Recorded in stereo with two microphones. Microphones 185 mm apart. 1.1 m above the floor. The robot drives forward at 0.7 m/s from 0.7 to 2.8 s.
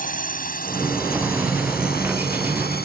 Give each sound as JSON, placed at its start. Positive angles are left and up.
{"t": 0.0, "sound": "a drone", "side_deg": 45}